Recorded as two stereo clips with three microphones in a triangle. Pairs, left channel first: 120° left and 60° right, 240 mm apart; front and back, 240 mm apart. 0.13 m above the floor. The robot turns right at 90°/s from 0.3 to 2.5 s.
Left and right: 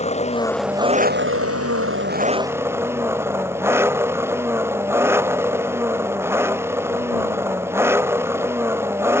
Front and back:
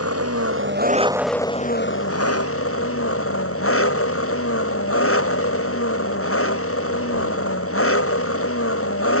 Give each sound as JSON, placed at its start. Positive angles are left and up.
{"t": 0.0, "sound": "an engine running", "azimuth_deg": 180}